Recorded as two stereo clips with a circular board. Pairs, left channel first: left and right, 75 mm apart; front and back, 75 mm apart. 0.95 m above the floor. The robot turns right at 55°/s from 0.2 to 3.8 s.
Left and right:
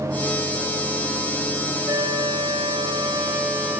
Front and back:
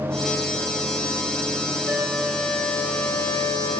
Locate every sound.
1.9 s a flute: 125° right, 1.5 m; by 3.8 s 15° right, 1.5 m